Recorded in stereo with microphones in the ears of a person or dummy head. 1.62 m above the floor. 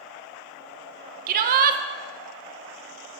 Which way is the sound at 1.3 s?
50° right (ahead or behind).